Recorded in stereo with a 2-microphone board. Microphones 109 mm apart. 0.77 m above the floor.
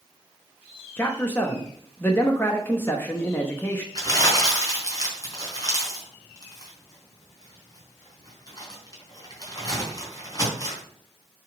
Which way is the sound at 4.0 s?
35° left (ahead or behind).